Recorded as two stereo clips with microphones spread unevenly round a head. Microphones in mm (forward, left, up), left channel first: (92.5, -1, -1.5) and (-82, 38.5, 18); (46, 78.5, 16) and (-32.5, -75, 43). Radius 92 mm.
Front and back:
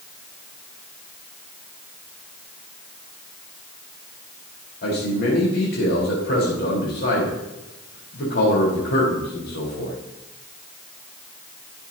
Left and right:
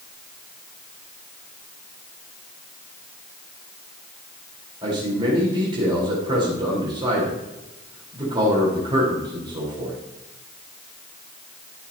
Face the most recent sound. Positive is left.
turn(degrees=-55)